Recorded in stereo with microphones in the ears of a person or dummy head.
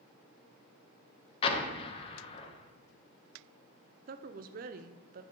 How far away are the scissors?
No scissors in this recording.